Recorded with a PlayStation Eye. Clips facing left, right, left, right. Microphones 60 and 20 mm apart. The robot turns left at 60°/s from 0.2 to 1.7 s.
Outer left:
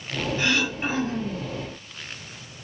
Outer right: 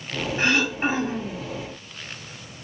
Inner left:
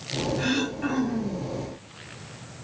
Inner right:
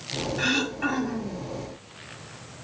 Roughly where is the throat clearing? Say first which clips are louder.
Outer right 4 dB, inner right 4 dB; right.